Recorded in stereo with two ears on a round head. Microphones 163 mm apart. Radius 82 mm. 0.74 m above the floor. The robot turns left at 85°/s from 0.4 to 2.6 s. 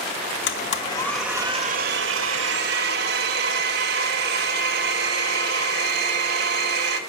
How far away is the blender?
About 1.7 m.